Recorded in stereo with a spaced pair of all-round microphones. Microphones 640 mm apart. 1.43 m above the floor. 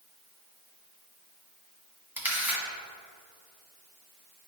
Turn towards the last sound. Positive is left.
turn(degrees=-5)  # may be behind; listen again after turning